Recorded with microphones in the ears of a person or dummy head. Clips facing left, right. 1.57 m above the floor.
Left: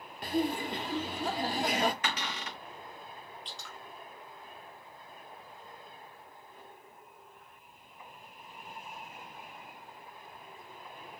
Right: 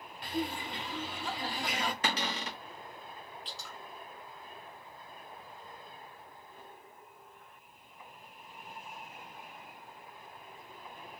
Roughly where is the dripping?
Centre.